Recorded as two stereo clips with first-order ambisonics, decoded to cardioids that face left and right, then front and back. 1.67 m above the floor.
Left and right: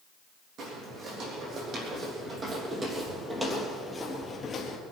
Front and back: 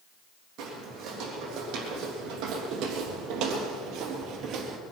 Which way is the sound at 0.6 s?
140° right.